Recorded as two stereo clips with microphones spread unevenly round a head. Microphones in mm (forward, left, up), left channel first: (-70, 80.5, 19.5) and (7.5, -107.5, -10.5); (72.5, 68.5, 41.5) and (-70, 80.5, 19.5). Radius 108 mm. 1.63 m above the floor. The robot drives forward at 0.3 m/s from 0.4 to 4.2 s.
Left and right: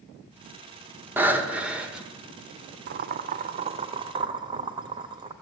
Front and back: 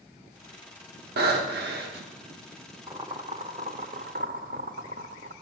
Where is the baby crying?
I don't hear a baby crying.